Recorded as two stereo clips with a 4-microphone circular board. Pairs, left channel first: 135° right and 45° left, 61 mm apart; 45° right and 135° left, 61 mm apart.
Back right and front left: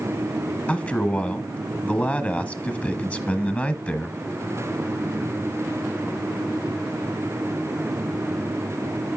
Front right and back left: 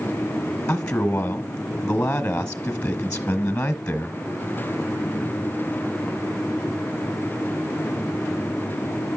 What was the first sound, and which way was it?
A man speaking, 95° right.